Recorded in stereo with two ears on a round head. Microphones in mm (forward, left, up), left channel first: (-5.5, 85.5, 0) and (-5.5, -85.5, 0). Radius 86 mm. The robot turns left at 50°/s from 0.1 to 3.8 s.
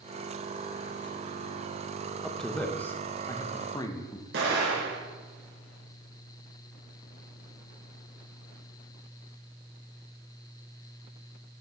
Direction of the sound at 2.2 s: Centre (ahead or behind).